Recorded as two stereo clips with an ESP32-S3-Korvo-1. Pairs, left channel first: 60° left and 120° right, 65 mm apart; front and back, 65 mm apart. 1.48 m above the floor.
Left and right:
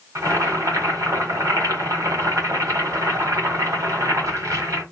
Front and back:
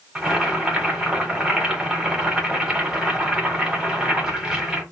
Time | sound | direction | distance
0.1 | boiling | 105° right | 1.7 m